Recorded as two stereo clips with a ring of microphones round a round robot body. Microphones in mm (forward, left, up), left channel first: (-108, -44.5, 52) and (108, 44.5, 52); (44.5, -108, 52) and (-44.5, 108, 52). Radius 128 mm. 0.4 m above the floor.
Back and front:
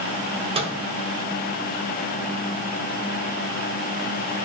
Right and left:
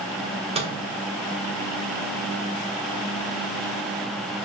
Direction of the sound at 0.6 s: 70° left.